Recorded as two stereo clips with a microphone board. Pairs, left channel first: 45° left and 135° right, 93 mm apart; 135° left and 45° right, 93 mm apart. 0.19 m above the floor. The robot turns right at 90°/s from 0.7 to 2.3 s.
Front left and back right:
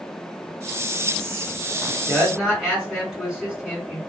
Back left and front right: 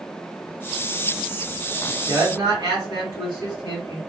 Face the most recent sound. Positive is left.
turn(degrees=-50)